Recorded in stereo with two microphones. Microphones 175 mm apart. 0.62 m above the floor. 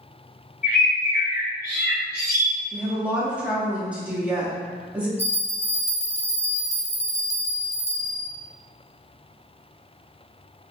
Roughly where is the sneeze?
No sneeze in this recording.